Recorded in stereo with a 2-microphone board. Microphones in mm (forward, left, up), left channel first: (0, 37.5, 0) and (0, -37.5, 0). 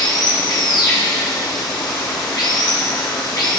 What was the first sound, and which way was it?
Running water, 75° left (ahead or behind).